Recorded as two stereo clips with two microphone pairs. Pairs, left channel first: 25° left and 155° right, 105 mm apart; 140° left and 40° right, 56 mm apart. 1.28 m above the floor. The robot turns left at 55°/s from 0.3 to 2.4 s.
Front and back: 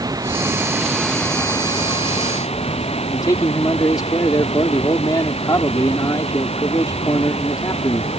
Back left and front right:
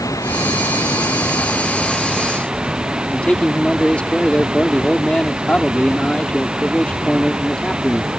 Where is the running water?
150° left; by 8.2 s 35° left.